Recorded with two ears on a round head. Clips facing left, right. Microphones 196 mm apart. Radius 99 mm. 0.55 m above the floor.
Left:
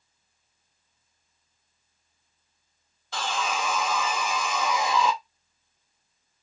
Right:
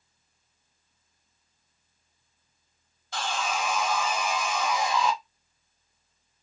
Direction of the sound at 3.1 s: 65° left (ahead or behind).